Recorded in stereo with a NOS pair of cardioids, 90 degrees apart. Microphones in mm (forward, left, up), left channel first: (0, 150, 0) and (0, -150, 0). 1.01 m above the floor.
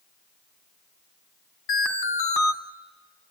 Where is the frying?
No frying in this recording.